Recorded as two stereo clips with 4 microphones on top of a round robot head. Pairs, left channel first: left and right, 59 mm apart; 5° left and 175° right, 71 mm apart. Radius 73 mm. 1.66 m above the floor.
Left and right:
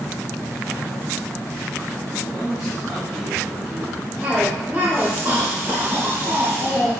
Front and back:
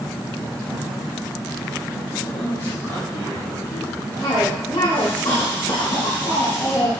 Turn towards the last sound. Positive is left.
turn(degrees=-15)